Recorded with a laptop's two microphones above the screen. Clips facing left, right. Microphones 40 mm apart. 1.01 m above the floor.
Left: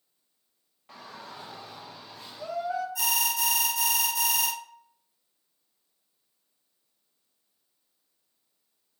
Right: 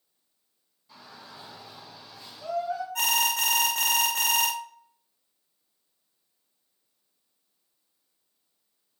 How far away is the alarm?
About 0.6 m.